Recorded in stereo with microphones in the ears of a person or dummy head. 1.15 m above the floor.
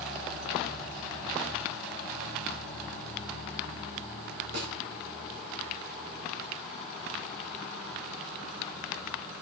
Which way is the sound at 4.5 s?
65° right (ahead or behind).